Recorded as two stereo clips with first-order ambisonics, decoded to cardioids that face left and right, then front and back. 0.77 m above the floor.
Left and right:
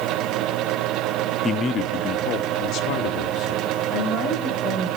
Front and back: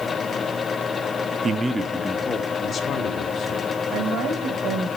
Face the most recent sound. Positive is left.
turn(degrees=150)